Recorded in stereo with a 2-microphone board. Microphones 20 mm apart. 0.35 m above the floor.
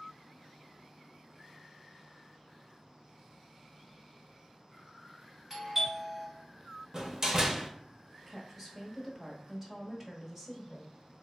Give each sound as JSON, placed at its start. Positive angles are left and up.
{"t": 5.5, "sound": "a doorbell", "side_deg": -20, "distance_m": 1.5}
{"t": 6.9, "sound": "a door slam", "side_deg": -30, "distance_m": 0.6}
{"t": 8.3, "sound": "a woman speaking", "side_deg": -15, "distance_m": 1.0}